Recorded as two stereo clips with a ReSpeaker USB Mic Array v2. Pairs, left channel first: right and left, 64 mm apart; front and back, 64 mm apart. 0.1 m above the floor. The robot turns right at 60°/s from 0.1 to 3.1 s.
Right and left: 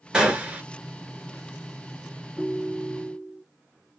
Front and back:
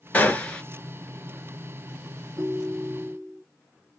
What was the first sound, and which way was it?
A gunshot, 25° left.